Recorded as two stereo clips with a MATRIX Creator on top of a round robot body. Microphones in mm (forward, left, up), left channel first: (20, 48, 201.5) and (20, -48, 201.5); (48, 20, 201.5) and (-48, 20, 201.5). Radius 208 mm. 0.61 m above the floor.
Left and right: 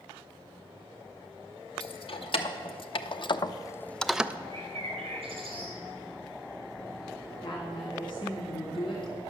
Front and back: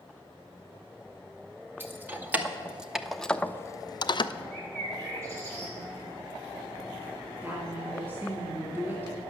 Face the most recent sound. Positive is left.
turn(degrees=115)